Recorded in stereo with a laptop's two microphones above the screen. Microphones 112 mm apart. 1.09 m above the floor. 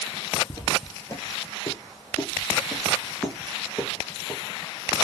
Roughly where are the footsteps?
Left.